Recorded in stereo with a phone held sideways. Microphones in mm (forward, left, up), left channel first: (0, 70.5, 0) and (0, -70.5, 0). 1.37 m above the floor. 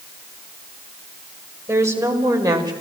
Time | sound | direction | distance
1.7 | a woman speaking | 20° right (ahead or behind) | 5.5 m